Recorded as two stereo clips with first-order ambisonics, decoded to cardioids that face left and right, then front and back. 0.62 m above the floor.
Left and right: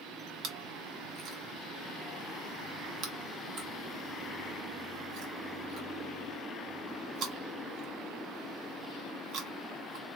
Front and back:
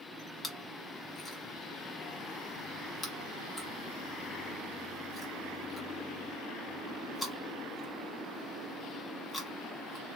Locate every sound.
0.4 s chewing: 85° right, 1.4 m